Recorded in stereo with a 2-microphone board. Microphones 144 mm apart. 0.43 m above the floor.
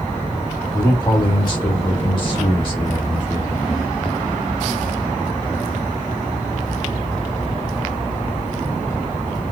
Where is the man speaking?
30° left (ahead or behind), 1.7 m; by 3.9 s 35° left (ahead or behind), 1.9 m.